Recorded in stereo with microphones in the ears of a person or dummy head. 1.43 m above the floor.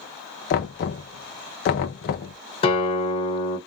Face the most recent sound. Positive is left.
turn(degrees=30)  # may be behind; listen again after turning